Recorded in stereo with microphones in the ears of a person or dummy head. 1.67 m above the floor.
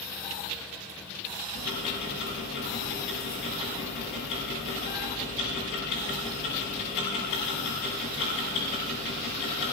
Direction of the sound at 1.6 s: 65° left (ahead or behind).